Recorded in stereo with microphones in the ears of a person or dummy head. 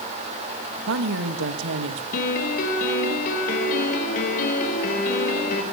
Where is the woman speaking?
70° right (ahead or behind), 2.5 m.